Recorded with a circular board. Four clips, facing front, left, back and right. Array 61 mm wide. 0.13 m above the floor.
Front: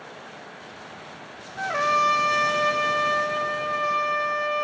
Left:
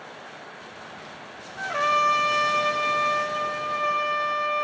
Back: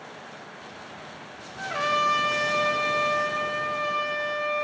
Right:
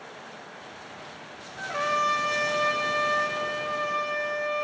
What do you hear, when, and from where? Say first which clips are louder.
1.6 s a trumpet: left 4 dB, front 3 dB; 5° left, 3 m